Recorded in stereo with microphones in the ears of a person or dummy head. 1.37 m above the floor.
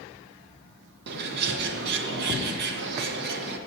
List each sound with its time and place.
1.1 s a bird: 60° right (ahead or behind), 0.9 m